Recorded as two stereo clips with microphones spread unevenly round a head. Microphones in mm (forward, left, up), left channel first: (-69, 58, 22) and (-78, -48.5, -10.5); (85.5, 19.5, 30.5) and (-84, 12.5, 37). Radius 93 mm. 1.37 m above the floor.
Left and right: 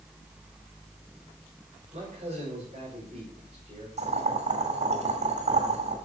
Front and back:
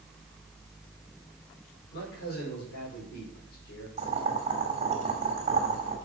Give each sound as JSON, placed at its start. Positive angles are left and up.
{"t": 1.9, "sound": "a man speaking", "azimuth_deg": -35, "distance_m": 5.0}
{"t": 4.0, "sound": "boiling", "azimuth_deg": -120, "distance_m": 2.5}